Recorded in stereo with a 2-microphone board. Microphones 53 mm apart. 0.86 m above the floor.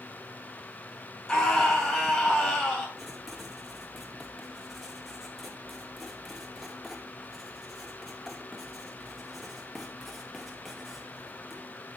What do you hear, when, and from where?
1.3 s a scream: 10° left (ahead or behind), 5.5 m
3.0 s writing: 5° right (ahead or behind), 2 m